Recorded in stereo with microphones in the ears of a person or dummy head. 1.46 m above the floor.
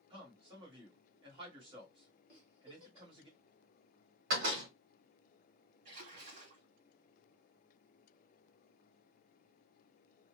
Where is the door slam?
55° right (ahead or behind), 1.3 m.